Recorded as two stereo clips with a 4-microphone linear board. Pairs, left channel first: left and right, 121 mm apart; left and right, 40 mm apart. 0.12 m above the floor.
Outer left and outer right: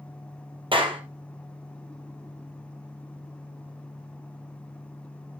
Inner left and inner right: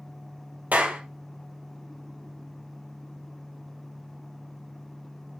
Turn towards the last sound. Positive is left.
turn(degrees=-45)  # may be behind; listen again after turning